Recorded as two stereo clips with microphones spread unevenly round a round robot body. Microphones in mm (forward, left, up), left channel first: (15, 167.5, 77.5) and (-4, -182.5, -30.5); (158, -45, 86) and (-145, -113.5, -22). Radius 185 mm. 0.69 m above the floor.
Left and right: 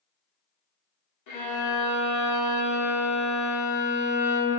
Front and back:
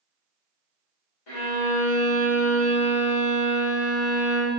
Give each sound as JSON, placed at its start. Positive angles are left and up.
{"t": 1.3, "sound": "a violin", "azimuth_deg": 40, "distance_m": 0.9}